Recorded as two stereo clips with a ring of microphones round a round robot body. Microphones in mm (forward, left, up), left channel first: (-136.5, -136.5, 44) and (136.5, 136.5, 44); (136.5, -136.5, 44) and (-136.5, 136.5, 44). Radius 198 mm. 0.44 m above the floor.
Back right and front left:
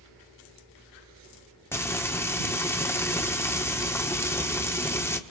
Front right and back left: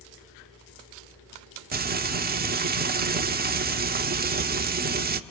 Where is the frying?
150° left, 1.2 m.